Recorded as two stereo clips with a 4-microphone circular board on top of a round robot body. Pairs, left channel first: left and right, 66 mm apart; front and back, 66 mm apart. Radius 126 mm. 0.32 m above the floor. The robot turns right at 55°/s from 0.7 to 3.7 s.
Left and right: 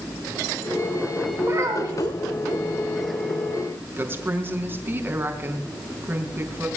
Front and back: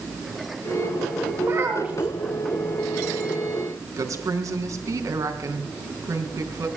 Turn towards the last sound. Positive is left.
turn(degrees=-145)